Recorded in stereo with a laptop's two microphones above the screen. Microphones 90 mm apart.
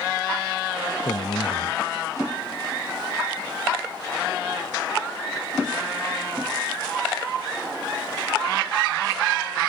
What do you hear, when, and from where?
1.0 s a man speaking: 70° left (ahead or behind)